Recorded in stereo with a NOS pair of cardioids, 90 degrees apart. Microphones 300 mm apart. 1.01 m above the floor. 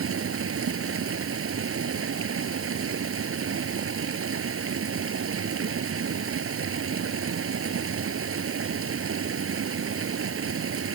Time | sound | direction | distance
0.0 | running water | 45° right | ?